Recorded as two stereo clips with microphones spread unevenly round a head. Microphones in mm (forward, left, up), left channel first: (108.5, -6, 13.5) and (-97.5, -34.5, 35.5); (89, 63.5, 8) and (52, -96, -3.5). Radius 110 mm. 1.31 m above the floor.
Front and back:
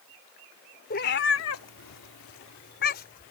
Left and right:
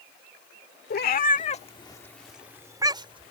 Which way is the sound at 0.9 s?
60° left.